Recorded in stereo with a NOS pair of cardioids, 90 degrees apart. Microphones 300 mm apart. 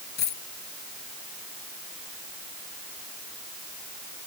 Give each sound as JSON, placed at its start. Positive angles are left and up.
{"t": 0.2, "sound": "a dropped coin", "azimuth_deg": 65}